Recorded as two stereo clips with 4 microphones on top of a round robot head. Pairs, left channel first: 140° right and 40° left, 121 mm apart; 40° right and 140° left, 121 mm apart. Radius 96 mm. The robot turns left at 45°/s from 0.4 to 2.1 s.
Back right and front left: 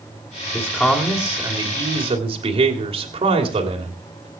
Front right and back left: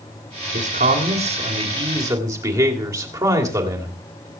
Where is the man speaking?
150° left, 3 m; by 4.3 s 80° left, 3 m.